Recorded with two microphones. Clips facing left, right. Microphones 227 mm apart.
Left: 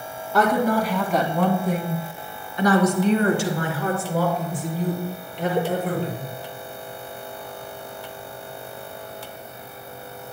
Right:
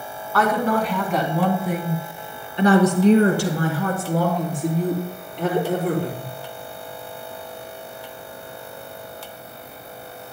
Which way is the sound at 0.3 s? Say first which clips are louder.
Left 1 dB; 20° left (ahead or behind).